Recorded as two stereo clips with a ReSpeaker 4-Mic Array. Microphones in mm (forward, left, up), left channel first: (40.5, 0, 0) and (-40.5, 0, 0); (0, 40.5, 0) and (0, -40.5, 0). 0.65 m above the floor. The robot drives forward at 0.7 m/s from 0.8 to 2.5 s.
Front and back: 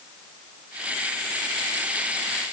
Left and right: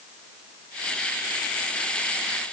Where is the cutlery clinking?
No cutlery clinking in this recording.